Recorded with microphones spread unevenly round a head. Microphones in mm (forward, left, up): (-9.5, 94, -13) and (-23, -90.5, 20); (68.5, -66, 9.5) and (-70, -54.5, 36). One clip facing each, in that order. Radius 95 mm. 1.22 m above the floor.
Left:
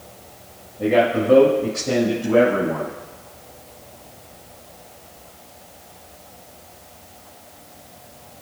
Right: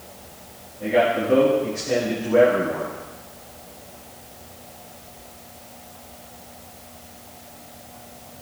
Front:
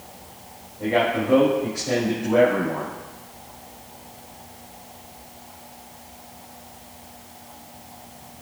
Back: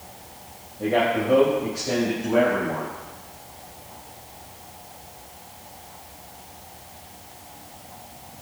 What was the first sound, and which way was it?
A man speaking, 95° left.